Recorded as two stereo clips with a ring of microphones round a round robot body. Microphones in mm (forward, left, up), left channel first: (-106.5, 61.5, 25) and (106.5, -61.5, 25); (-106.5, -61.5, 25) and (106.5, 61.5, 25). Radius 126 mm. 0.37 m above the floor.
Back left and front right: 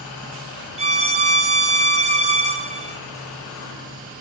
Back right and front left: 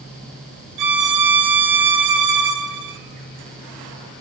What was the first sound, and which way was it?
A violin, 35° left.